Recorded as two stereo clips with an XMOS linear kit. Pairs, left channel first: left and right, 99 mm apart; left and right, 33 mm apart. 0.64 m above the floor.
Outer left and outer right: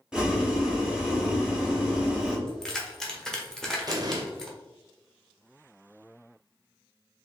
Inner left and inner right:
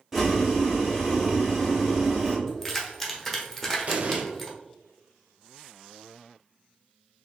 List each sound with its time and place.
0.1 s boiling: 5° right (ahead or behind), 1.2 m
2.5 s keys jangling: 5° left (ahead or behind), 1.0 m
3.9 s an explosion: 40° right (ahead or behind), 0.6 m